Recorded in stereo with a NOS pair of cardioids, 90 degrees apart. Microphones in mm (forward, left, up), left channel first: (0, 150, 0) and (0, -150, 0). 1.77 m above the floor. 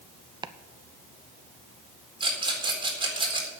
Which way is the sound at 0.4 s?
15° right.